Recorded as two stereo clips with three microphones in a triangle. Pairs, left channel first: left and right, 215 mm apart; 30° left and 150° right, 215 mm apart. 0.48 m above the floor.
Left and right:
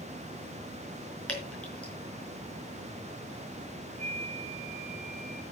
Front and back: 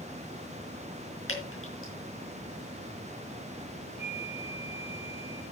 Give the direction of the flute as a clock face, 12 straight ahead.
1 o'clock.